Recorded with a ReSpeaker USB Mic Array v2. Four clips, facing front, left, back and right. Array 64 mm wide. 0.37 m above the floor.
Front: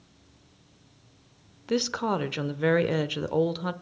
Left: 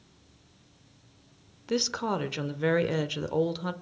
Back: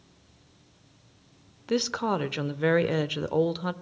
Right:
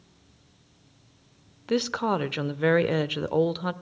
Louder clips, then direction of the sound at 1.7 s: Right 4 dB, even; 95° right.